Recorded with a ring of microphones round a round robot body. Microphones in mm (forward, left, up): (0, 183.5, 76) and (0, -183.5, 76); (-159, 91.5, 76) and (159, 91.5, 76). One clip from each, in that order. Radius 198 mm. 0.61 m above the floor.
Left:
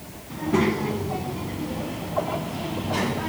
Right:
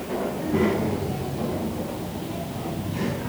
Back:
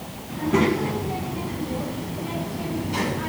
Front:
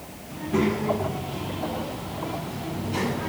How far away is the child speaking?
About 6 m.